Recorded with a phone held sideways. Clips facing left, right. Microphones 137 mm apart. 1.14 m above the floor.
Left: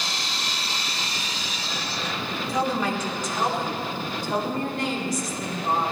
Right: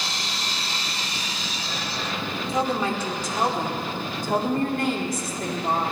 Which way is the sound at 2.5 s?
25° right (ahead or behind).